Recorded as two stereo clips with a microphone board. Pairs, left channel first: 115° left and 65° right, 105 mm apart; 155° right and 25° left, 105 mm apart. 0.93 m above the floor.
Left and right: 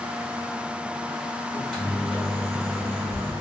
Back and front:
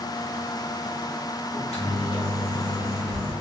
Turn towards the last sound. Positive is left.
turn(degrees=-165)